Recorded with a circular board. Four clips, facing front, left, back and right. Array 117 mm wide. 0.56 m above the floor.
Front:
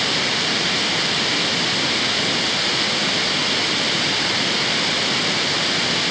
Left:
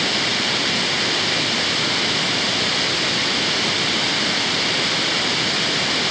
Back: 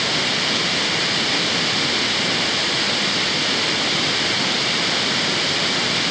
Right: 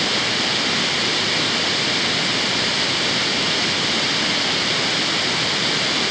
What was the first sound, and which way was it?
Only background noise.